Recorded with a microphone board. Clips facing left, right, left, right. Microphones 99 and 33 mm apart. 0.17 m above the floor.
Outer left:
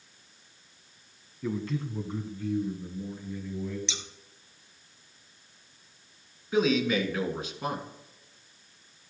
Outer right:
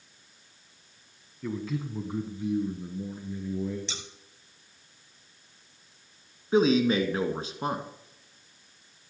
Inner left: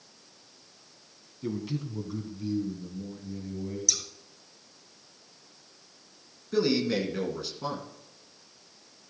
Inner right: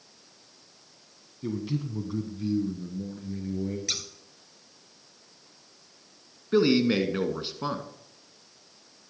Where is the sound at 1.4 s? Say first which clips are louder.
Outer left 1 dB, inner right 2 dB; 5° left (ahead or behind), 1.1 m; by 3.8 s 20° right (ahead or behind), 2.5 m.